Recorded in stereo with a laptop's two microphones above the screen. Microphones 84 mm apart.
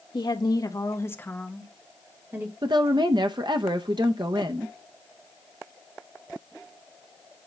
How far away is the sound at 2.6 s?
About 0.7 m.